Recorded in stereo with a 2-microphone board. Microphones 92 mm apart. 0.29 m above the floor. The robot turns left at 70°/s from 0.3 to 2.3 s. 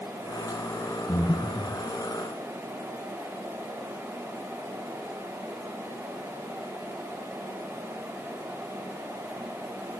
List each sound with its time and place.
1.1 s breathing: 65° left, 4 m; by 1.8 s 15° left, 4 m